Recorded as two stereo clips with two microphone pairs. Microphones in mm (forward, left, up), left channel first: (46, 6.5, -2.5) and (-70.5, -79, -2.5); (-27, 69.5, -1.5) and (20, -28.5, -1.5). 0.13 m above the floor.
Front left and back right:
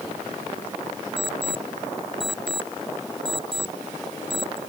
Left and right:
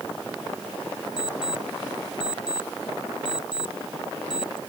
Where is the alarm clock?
165° left.